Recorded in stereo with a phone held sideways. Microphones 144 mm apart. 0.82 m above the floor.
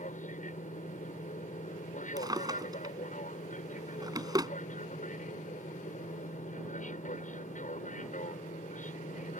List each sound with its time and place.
0.0 s an aircraft: 60° left (ahead or behind)
2.2 s a drawer: 30° right (ahead or behind)